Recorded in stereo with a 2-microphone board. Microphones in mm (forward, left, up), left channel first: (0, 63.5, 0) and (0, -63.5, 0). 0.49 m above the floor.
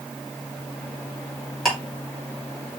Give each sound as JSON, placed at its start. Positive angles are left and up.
{"t": 1.6, "sound": "ticking", "side_deg": 5, "distance_m": 3.0}